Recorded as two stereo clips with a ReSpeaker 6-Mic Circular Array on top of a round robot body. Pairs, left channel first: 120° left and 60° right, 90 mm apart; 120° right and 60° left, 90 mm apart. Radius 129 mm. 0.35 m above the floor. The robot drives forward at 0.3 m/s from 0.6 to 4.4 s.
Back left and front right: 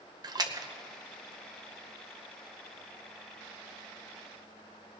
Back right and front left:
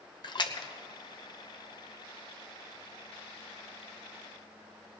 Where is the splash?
95° right, 1.2 m.